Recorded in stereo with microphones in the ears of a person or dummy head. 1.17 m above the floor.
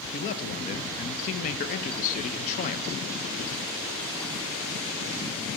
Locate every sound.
0.1 s a man speaking: 40° left (ahead or behind), 0.7 m